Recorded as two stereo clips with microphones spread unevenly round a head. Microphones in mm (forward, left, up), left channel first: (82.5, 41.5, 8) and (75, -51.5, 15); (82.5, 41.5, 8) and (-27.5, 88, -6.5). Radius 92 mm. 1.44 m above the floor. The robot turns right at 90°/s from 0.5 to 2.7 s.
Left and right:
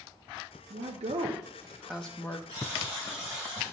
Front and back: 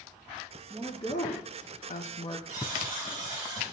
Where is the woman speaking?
120° right, 0.8 m; by 2.4 s 35° left, 0.8 m.